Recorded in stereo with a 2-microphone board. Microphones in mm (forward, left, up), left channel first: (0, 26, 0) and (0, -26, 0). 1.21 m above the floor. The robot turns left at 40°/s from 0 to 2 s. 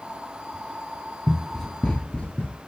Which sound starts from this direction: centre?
Running footsteps, at 1.3 s.